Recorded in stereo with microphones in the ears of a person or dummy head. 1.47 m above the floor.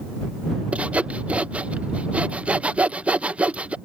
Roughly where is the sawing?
Centre.